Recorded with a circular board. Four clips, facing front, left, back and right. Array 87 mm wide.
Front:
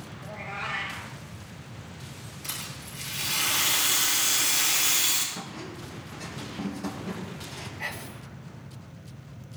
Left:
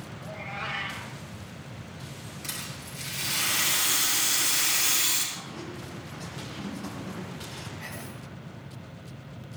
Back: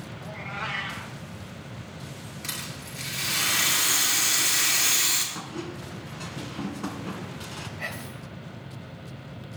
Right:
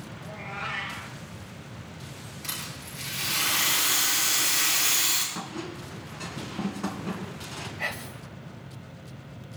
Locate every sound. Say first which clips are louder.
0.2 s a cat meowing: even, back 1 dB; 170° left, 5.5 m
2.4 s a rattle: right 2 dB, back 2 dB; 175° right, 6.5 m
5.3 s a squeak: right 3 dB, back 3 dB; 135° right, 2.5 m
7.8 s whispering: right 5 dB, front 1 dB; 115° right, 2 m